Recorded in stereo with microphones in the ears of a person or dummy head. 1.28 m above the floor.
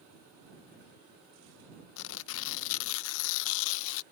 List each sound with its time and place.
2.0 s tearing paper: 75° left (ahead or behind)